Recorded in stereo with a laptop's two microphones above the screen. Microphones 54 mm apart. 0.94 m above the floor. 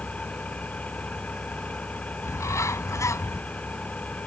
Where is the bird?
75° left (ahead or behind).